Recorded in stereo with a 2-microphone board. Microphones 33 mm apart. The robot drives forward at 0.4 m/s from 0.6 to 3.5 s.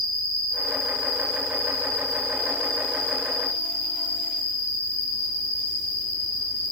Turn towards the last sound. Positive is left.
turn(degrees=45)  # may be behind; listen again after turning